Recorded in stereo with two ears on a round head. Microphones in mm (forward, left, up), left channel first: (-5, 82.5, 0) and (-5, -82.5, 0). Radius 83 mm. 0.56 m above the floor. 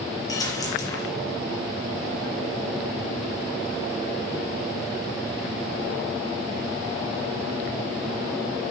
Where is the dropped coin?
20° left (ahead or behind), 5 m.